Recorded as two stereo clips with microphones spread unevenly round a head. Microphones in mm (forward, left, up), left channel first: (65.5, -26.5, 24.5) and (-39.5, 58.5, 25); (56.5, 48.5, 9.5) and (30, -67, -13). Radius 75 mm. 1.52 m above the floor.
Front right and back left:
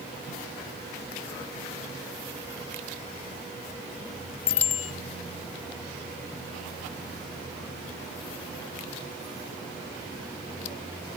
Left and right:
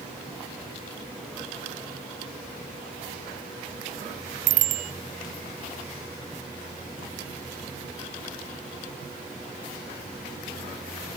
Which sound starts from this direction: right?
A bicycle bell, at 4.5 s.